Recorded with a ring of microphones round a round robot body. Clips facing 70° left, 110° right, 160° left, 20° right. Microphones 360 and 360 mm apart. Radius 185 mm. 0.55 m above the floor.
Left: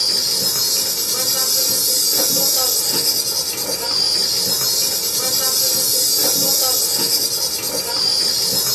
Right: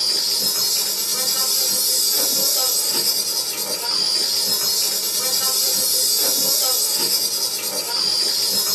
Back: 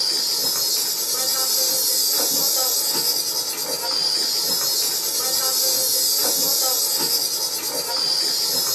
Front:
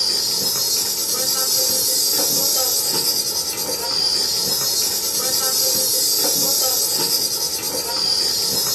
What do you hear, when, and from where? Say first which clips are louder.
0.0 s an insect: left 4 dB, front 3 dB; 30° left, 1.6 m